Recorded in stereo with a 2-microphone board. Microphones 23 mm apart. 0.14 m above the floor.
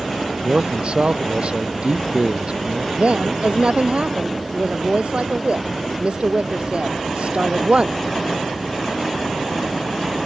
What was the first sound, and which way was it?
A man speaking, 55° right (ahead or behind).